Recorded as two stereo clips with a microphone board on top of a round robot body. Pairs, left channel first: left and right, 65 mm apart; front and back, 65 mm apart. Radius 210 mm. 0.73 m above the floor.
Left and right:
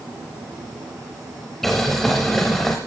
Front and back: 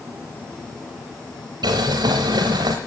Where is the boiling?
Straight behind, 0.6 m.